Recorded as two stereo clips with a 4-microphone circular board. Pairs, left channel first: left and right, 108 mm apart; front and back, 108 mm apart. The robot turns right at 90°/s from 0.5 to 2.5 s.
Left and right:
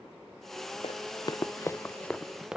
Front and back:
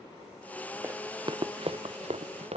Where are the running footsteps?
115° left; by 2.6 s 175° right.